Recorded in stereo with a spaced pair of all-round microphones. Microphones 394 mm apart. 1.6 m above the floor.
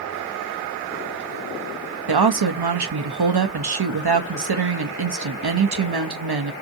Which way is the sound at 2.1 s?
80° right.